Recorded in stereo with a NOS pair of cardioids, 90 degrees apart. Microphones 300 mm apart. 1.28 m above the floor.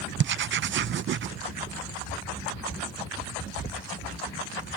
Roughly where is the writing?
Ahead right.